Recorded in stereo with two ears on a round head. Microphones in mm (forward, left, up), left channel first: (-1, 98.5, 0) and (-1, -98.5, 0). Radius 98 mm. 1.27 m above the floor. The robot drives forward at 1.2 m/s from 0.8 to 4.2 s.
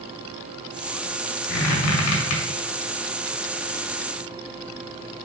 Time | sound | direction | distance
1.5 | a squeak | 80° left | 2.0 m